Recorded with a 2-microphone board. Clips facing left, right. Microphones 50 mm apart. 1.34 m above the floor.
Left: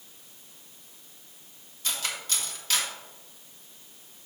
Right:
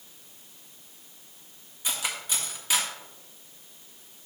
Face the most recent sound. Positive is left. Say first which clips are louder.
# right 1 dB
turn(degrees=-15)  # may be behind; listen again after turning